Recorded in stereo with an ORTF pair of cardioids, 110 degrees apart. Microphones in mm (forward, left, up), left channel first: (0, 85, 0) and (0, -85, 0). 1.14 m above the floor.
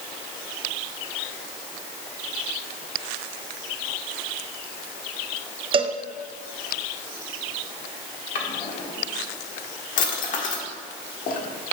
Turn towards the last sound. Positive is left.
turn(degrees=55)